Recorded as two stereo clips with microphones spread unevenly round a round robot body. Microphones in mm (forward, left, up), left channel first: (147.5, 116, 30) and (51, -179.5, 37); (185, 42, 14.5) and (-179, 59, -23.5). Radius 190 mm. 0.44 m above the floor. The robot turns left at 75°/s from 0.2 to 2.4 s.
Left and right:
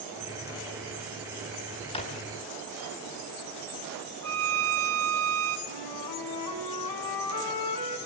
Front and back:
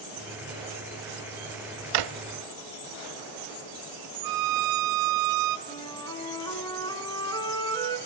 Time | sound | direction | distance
1.9 | a drawer | 150° left | 0.7 m
4.2 | a violin | 155° right | 0.7 m
5.7 | a flute | 75° left | 3.5 m